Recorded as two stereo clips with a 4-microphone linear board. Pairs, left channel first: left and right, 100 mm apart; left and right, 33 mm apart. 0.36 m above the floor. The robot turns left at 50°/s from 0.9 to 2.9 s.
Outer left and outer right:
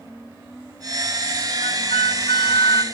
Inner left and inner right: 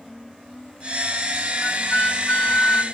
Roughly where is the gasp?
No gasp in this recording.